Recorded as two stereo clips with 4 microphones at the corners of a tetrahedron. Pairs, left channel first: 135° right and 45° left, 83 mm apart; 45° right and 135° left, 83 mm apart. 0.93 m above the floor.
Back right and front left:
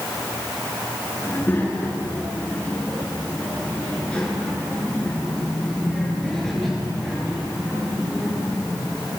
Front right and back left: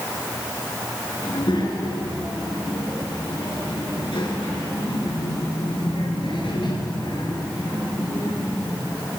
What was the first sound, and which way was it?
A child speaking, 70° right.